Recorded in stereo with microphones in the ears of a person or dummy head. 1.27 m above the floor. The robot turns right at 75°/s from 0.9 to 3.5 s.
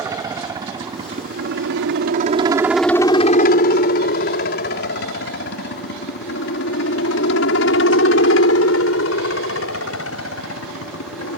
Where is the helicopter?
25° right (ahead or behind); by 11.4 s 70° left (ahead or behind).